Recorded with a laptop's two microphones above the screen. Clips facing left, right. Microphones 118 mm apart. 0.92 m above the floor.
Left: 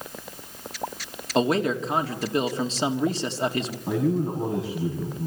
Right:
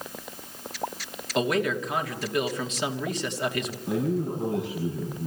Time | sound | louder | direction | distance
1.4 | a man speaking | left 3 dB | 30° left (ahead or behind) | 2 m
3.9 | a man speaking | left 3 dB | 85° left | 7 m